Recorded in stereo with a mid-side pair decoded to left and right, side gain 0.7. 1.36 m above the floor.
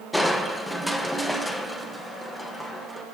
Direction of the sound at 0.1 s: 10° left.